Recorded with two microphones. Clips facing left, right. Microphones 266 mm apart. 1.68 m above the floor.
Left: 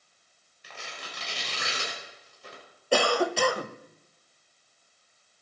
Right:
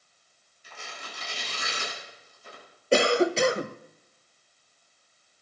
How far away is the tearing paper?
About 6 m.